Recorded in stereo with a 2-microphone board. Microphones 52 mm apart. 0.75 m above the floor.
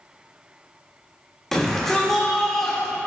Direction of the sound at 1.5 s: 10° left (ahead or behind).